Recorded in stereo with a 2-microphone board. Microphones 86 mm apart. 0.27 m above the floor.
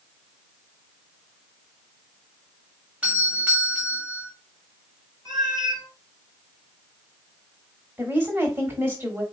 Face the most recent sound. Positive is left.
turn(degrees=-25)  # may be behind; listen again after turning